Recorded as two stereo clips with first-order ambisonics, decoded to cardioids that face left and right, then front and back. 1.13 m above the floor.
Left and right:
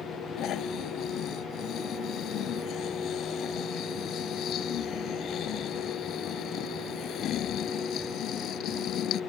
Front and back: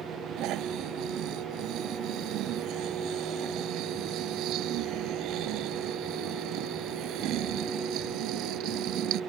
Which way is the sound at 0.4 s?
140° left.